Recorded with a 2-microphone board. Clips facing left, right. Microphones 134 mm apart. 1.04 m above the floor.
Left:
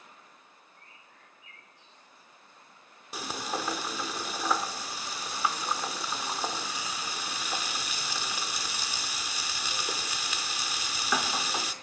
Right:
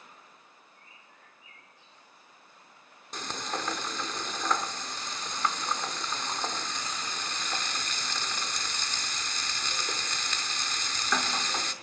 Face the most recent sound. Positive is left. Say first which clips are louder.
# left 1 dB
turn(degrees=10)  # may be behind; listen again after turning